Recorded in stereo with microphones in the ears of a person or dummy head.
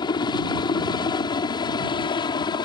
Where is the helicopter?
25° left (ahead or behind).